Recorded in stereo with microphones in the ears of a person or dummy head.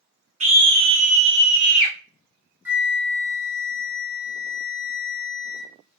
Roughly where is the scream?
Right.